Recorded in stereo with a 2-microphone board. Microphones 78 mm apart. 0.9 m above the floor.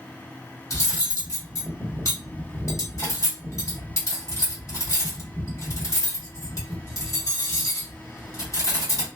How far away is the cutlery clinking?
About 1.4 m.